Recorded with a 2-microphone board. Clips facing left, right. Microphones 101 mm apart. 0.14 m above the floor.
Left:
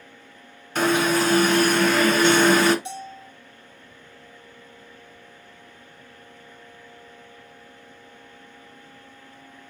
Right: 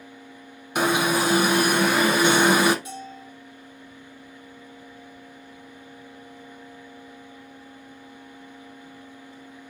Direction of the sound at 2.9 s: 30° left (ahead or behind).